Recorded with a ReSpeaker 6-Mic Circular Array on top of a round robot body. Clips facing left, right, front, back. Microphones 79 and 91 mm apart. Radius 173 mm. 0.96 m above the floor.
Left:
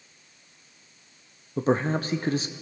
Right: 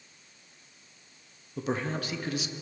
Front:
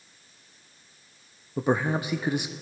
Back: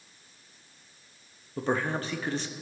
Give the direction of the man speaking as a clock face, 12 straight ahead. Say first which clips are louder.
Left 8 dB, front 4 dB; 10 o'clock.